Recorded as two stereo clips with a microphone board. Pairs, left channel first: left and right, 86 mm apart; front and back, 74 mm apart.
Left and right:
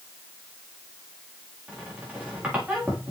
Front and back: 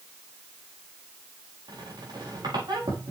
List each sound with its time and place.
1.7 s a squeak: 165° right, 4.5 m